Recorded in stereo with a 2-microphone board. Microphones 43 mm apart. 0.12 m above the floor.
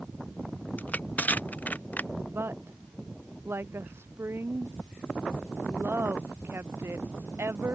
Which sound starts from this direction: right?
A woman speaking, at 2.3 s.